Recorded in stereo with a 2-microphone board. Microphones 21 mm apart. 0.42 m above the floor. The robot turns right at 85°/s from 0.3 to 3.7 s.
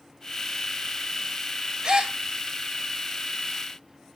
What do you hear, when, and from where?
1.8 s a gasp: 40° right (ahead or behind), 1.7 m; by 2.1 s 55° right (ahead or behind), 1.7 m